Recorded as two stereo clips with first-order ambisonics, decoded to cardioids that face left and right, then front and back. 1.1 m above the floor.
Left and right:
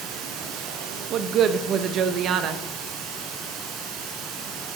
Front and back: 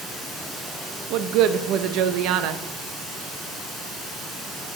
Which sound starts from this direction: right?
Running water, at 0.0 s.